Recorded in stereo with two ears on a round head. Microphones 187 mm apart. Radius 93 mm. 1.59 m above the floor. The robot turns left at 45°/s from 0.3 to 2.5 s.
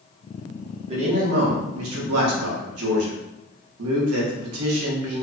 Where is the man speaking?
25° right, 0.8 m; by 5.2 s 100° right, 0.8 m.